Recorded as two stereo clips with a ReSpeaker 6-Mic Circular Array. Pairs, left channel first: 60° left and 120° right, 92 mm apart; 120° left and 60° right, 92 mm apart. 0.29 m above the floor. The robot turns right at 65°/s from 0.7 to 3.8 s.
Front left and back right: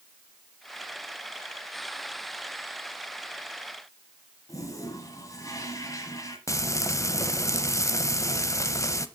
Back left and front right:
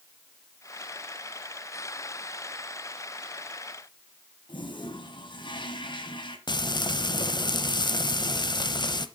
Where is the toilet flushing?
105° left, 1.4 m.